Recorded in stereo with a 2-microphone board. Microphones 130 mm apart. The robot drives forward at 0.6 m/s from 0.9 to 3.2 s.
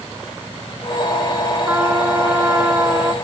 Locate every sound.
1.7 s a trumpet: 15° right (ahead or behind); by 3.1 s 20° right (ahead or behind)